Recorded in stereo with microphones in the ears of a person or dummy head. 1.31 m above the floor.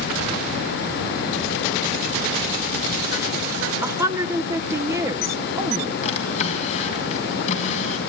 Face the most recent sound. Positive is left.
turn(degrees=45)  # may be behind; listen again after turning